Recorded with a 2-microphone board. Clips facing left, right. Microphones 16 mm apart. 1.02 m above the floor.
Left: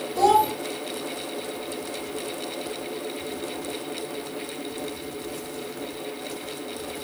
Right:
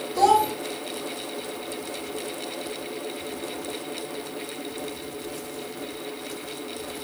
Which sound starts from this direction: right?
A child speaking, at 0.1 s.